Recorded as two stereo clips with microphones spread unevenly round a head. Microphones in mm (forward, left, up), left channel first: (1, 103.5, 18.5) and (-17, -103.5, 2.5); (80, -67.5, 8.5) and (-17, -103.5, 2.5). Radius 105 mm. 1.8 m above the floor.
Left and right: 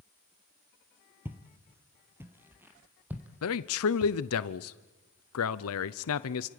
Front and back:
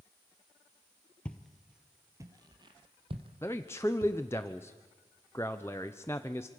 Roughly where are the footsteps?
Ahead.